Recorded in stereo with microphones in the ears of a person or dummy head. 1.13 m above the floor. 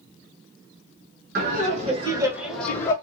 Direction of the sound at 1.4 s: 50° right (ahead or behind).